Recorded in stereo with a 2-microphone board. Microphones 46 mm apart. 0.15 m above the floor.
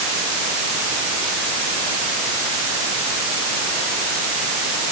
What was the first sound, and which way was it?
Only background noise.